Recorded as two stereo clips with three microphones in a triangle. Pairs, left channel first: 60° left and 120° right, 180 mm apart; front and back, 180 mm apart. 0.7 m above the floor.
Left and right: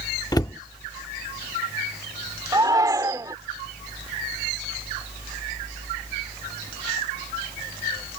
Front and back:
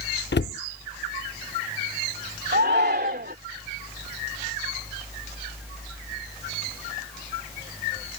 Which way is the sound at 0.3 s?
10° right.